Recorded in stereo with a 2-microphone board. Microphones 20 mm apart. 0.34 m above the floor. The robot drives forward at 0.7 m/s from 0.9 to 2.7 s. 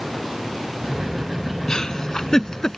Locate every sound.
1.7 s a giggle: 40° left (ahead or behind); by 2.8 s 35° left (ahead or behind)